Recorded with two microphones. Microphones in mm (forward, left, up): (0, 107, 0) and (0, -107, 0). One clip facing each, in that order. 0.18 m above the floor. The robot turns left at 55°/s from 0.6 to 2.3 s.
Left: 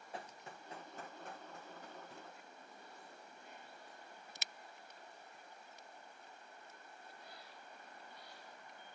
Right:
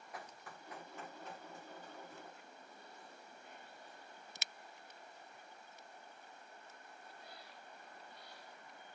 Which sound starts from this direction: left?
Running footsteps, at 0.1 s.